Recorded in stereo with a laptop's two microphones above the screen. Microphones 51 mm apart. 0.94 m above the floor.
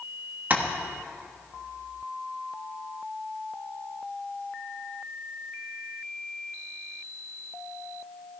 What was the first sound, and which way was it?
Tapping, 35° right (ahead or behind).